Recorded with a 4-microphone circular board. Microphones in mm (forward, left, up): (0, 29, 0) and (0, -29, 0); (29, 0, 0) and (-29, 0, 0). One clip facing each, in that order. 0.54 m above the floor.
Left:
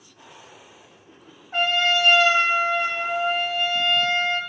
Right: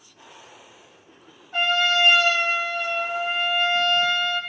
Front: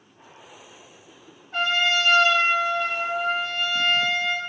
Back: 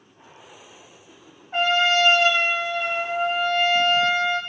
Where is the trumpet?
120° left, 1.0 m.